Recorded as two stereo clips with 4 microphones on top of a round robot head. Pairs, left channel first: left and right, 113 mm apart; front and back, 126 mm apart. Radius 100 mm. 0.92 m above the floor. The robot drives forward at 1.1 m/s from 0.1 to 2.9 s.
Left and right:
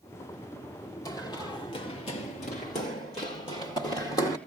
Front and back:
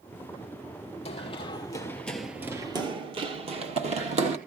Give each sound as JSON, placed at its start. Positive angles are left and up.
{"t": 1.1, "sound": "running footsteps", "azimuth_deg": 40, "distance_m": 2.5}